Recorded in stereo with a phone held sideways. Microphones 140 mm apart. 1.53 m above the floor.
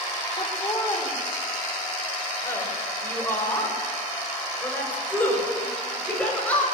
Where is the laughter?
25° left (ahead or behind), 4.5 m; by 6.7 s 10° left (ahead or behind), 7.5 m.